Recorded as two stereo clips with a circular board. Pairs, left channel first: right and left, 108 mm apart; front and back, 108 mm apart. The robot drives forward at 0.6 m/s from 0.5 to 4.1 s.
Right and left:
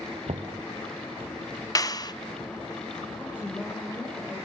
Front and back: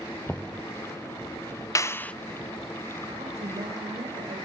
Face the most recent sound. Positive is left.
turn(degrees=-160)